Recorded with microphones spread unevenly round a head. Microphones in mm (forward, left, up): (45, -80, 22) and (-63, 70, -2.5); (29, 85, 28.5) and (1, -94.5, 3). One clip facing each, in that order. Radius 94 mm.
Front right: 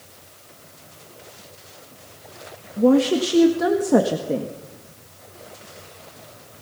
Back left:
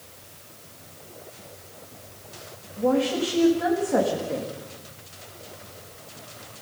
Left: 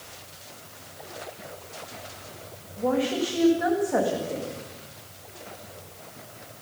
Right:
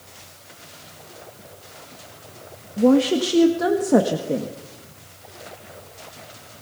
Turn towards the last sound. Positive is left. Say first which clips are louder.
# front right 6 dB, right 9 dB
turn(degrees=-85)